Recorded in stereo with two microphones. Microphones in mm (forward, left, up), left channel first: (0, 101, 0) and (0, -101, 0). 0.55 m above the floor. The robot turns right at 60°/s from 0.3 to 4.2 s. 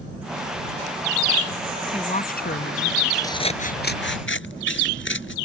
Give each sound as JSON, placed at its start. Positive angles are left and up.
{"t": 1.9, "sound": "a woman speaking", "azimuth_deg": 20}
{"t": 3.2, "sound": "scissors", "azimuth_deg": 15}